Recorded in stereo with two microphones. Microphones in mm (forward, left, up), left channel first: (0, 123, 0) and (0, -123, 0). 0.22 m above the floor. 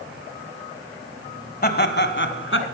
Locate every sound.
1.6 s laughter: 40° left (ahead or behind), 1.3 m; by 2.6 s 55° left (ahead or behind), 1.9 m